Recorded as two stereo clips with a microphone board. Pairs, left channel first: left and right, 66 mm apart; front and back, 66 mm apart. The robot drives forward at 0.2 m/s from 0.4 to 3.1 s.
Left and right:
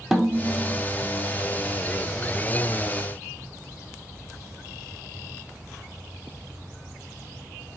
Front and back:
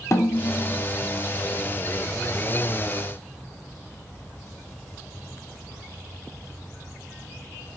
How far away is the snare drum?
About 0.8 m.